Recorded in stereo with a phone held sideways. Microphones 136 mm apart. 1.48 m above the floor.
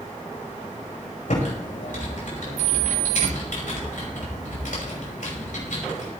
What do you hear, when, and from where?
1.3 s typing on a keyboard: 70° left (ahead or behind), 6 m